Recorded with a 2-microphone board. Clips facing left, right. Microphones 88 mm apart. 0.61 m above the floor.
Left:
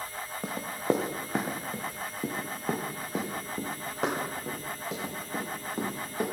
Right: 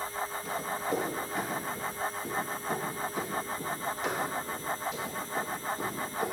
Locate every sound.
0.4 s running footsteps: 60° left (ahead or behind), 2.5 m; by 6.2 s 80° left, 7 m